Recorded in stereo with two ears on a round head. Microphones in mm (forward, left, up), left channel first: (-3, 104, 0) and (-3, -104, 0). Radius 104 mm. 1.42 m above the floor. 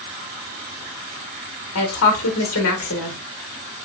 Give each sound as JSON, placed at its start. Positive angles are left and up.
{"t": 1.8, "sound": "a woman speaking", "side_deg": 65, "distance_m": 1.4}